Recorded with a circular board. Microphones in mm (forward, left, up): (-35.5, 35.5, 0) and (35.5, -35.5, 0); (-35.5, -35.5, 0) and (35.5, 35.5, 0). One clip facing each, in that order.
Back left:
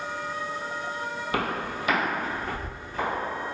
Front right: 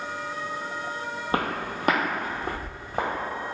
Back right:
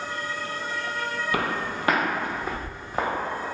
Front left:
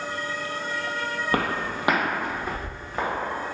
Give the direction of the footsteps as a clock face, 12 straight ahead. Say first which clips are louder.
Front right 2 dB, front left 2 dB; 12 o'clock.